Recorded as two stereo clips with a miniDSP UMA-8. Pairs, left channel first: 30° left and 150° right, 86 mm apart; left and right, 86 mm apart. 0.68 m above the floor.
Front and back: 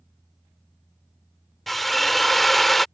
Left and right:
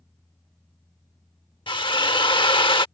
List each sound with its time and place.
1.7 s a drill: 120° left